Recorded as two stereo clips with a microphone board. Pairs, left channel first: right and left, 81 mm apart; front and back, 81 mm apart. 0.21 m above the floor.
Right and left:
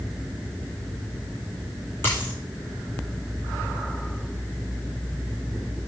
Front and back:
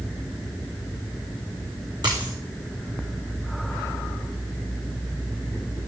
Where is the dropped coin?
155° right, 6 m.